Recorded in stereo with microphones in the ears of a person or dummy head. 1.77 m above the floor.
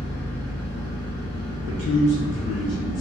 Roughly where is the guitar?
I don't hear a guitar.